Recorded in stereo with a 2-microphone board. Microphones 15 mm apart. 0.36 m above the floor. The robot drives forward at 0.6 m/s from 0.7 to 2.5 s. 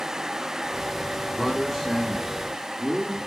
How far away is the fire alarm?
No fire alarm in this recording.